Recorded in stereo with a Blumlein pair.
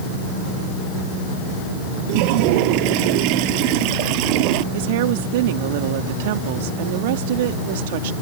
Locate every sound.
2.1 s a toilet flushing: 45° right
4.7 s a woman speaking: 50° right